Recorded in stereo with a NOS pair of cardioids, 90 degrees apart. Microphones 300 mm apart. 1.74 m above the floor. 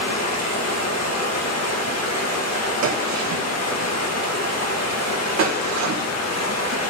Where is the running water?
60° left, 1.9 m.